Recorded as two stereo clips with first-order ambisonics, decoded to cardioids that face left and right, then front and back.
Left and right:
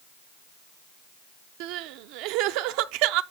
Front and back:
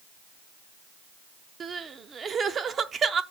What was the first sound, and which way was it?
Crying, 110° right.